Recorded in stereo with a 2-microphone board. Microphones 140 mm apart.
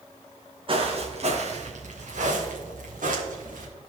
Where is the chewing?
I don't hear chewing.